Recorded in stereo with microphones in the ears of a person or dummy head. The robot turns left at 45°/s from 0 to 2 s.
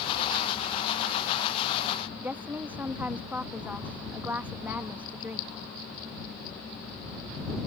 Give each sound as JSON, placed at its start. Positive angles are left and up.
{"t": 2.2, "sound": "a woman speaking", "side_deg": -20}